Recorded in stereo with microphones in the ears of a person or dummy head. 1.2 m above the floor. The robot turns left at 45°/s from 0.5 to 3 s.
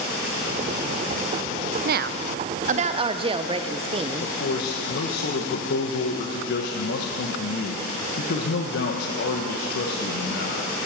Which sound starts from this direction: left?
A man speaking, at 4.2 s.